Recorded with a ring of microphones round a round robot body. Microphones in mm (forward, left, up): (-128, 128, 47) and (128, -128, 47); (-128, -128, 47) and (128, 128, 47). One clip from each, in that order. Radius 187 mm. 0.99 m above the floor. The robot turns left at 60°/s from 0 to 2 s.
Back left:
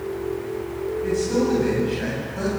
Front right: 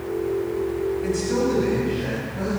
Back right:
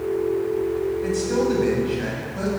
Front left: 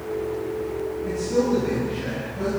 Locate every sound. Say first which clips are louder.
1.0 s a man speaking: back left 4 dB, front left 2 dB; 105° right, 7.5 m; by 2.5 s 165° right, 7.5 m